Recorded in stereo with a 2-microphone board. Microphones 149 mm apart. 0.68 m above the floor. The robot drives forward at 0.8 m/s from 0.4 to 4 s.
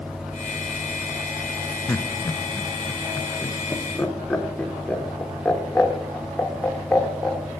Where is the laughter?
15° left (ahead or behind), 0.7 m; by 7.5 s 5° left (ahead or behind), 1.7 m.